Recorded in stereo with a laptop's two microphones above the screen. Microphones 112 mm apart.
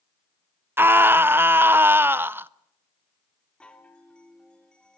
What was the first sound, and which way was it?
A scream, 20° right (ahead or behind).